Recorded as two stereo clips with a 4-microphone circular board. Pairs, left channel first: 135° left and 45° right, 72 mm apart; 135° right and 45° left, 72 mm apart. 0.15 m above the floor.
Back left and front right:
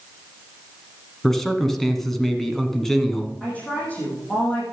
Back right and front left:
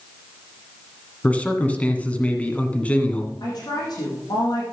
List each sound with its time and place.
1.2 s a man speaking: 145° right, 1.5 m
3.4 s a woman speaking: 155° right, 7 m